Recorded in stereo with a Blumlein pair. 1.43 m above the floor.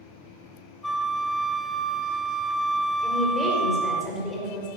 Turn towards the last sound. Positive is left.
turn(degrees=15)